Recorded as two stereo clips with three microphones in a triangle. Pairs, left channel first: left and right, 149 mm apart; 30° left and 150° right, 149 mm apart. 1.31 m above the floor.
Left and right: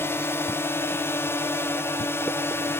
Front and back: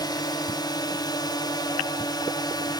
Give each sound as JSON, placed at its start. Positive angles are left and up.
{"t": 0.0, "sound": "a drone", "azimuth_deg": 35}